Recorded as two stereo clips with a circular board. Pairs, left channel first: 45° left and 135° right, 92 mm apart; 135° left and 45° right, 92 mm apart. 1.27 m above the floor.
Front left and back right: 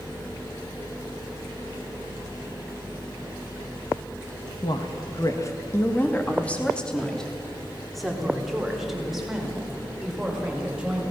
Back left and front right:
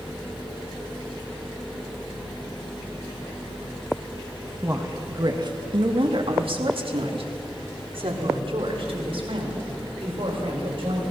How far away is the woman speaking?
About 1.3 m.